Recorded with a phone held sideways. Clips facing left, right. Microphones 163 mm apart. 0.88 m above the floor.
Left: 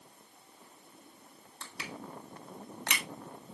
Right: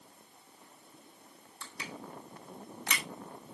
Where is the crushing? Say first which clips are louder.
Left 1 dB; 70° left (ahead or behind), 1.8 m.